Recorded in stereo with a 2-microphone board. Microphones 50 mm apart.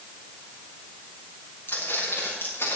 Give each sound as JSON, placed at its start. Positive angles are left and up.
{"t": 1.7, "sound": "footsteps", "side_deg": 50, "distance_m": 6.0}